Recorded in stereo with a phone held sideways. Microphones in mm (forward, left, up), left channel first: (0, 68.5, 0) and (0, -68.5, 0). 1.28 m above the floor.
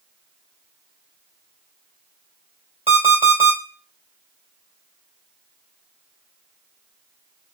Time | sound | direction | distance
2.9 | an alarm clock | 50° right (ahead or behind) | 1.9 m